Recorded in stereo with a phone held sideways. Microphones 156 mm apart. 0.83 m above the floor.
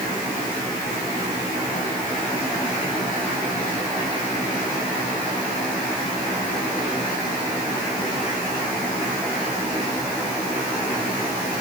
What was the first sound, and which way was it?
Only background noise.